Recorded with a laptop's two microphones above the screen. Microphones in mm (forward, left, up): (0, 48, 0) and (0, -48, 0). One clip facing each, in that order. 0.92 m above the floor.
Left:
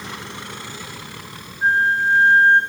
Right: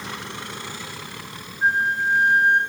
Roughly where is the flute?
Centre.